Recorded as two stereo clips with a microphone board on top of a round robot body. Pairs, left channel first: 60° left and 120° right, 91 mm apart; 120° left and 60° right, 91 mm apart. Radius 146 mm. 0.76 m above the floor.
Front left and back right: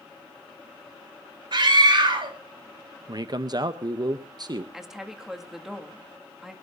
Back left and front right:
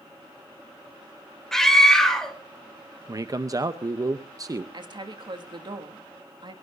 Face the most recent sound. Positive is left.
turn(degrees=-35)